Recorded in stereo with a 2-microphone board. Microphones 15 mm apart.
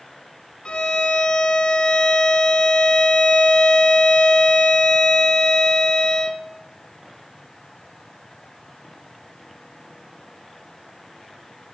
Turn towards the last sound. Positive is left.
turn(degrees=75)  # may be behind; listen again after turning